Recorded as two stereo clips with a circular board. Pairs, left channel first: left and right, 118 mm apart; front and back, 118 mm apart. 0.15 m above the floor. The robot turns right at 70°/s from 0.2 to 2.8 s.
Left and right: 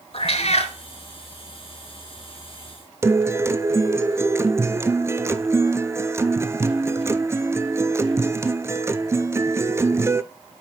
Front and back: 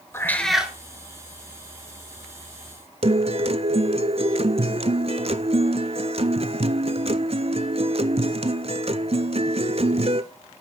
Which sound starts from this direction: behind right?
A guitar, at 3.0 s.